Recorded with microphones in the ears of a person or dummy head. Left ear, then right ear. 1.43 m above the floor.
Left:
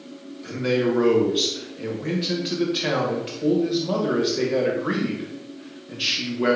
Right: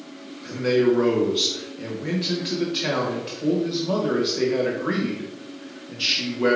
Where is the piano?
No piano in this recording.